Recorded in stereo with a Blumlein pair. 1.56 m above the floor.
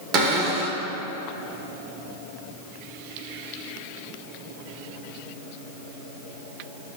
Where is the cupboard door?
30° right, 2.0 m.